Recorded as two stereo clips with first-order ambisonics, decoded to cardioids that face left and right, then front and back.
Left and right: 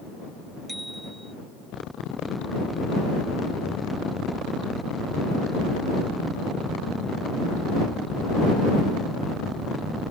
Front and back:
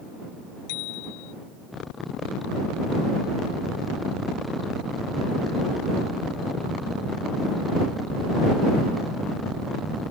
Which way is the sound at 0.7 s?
5° right.